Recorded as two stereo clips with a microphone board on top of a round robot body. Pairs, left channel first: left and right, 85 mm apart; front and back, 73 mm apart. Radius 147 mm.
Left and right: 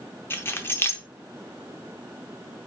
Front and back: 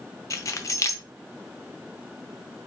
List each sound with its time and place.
0.3 s keys jangling: 30° left, 0.7 m